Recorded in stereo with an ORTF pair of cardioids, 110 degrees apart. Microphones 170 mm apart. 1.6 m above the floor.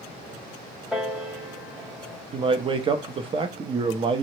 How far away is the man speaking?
About 0.5 m.